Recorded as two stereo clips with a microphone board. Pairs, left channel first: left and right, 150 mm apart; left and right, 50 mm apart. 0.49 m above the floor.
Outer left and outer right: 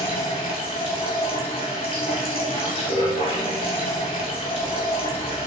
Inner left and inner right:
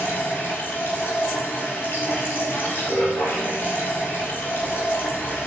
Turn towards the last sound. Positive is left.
turn(degrees=40)  # may be behind; listen again after turning